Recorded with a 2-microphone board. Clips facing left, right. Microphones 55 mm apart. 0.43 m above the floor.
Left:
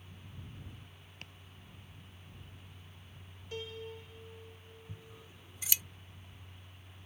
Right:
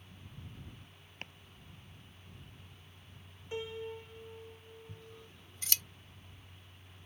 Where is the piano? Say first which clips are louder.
Right 3 dB; 25° right (ahead or behind).